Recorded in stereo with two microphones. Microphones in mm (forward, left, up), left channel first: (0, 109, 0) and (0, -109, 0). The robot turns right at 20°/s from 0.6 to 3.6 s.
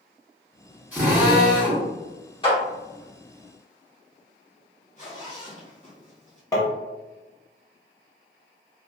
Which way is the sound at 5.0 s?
35° left (ahead or behind).